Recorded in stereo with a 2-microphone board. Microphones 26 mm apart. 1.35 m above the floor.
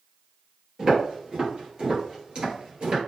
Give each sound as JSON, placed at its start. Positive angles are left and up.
{"t": 0.8, "sound": "footsteps", "side_deg": -30, "distance_m": 1.8}